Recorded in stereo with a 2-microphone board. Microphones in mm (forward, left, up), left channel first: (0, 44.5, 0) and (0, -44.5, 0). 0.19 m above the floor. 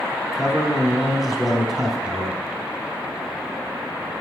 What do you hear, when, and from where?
0.3 s a man speaking: centre (ahead or behind), 1.2 m